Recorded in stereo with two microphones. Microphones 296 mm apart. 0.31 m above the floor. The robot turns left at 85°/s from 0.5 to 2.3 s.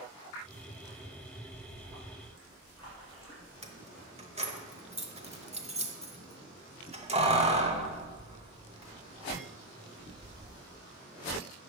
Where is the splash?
90° left, 4 m; by 3.5 s 20° left, 4 m.